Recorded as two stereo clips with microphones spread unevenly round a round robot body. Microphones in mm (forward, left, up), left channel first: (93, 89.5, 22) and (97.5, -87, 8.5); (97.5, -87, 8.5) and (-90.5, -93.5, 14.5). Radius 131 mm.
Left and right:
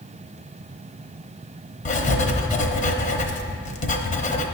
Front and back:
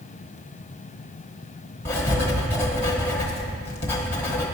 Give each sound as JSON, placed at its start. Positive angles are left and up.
{"t": 1.9, "sound": "writing", "azimuth_deg": 75, "distance_m": 0.9}